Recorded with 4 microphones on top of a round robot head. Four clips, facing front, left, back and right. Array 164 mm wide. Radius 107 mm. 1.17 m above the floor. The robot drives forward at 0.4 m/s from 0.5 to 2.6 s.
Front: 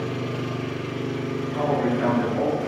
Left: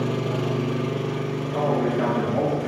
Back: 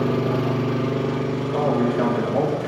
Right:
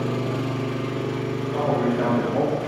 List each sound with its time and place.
0.0 s an engine running: 170° left, 0.8 m; by 2.7 s 175° left, 1.6 m
1.5 s a man speaking: 160° right, 6.5 m